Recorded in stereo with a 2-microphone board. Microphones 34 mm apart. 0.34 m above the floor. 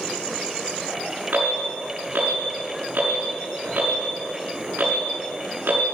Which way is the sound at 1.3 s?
70° right (ahead or behind).